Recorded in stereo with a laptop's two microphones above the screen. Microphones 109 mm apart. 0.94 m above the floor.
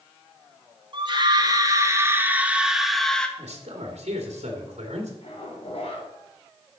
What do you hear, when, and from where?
0.9 s a scream: 45° right (ahead or behind), 1.8 m; by 3.3 s 5° left (ahead or behind), 1.5 m
3.4 s a man speaking: 75° right (ahead or behind), 2 m
5.2 s a zipper: 60° left (ahead or behind), 3.5 m